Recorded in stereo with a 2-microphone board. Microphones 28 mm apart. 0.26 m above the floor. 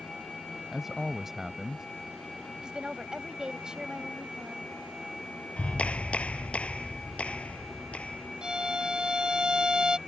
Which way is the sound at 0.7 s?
15° right (ahead or behind).